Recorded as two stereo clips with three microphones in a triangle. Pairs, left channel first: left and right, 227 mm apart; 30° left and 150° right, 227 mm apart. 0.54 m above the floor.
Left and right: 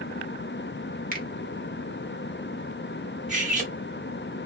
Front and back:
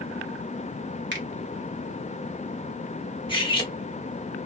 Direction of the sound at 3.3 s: 40° right.